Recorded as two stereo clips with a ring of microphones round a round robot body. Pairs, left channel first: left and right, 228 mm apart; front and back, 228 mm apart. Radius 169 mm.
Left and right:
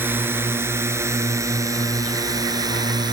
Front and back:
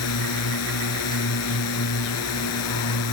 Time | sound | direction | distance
0.0 | a drone | 10° right | ?